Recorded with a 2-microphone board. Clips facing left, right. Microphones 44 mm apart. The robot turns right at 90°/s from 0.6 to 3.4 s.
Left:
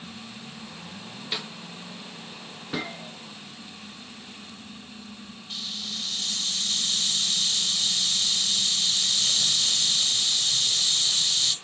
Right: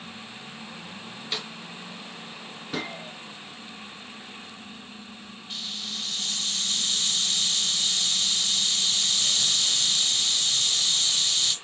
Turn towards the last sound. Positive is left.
turn(degrees=-5)  # may be behind; listen again after turning